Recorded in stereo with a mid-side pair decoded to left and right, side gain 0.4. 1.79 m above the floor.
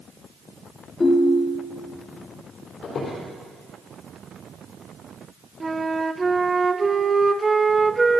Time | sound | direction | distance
1.0 | a ringtone | 40° left | 3 m
2.8 | a squeak | 65° left | 4 m
5.6 | a flute | 25° right | 0.7 m